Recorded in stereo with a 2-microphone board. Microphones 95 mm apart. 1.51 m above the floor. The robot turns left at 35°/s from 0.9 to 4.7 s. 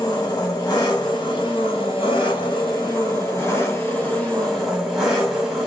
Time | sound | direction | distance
0.0 | an engine running | 125° left | 2 m